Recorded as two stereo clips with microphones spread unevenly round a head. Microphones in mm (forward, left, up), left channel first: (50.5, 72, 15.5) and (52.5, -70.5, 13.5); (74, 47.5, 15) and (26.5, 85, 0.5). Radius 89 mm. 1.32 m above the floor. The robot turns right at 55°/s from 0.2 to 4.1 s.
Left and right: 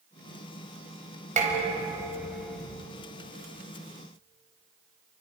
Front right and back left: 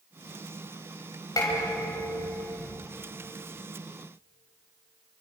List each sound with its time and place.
1.4 s dishes clattering: 55° right, 4.5 m; by 2.8 s 20° left, 4.5 m